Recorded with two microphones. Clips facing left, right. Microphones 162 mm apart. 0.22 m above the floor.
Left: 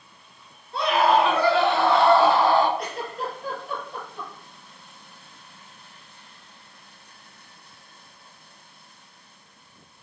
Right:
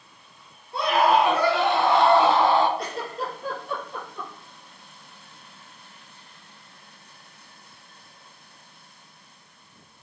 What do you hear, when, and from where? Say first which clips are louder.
0.7 s a scream: even; 10° right (ahead or behind), 4 m; by 2.7 s 20° right (ahead or behind), 2 m
2.8 s a giggle: even; 30° right (ahead or behind), 4 m